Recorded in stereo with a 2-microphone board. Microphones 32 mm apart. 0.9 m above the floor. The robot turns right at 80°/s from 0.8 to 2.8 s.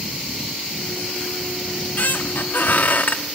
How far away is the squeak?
About 1.2 m.